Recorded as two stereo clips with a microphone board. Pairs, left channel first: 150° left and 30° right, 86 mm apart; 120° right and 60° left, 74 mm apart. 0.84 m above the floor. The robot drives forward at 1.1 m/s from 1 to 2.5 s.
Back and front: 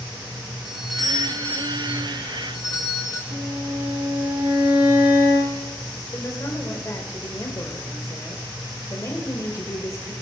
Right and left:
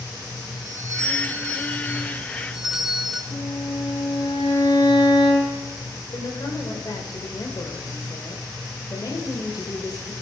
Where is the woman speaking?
155° right, 3 m.